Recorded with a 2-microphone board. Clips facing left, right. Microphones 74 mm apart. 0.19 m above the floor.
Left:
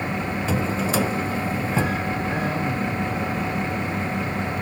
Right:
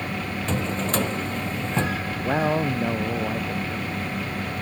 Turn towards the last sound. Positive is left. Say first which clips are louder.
# right 2 dB
turn(degrees=-45)  # may be behind; listen again after turning